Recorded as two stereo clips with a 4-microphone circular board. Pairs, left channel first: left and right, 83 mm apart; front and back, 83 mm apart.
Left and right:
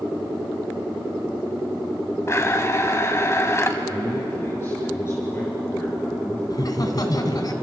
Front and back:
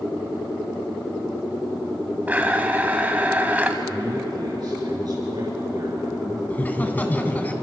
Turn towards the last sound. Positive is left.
turn(degrees=65)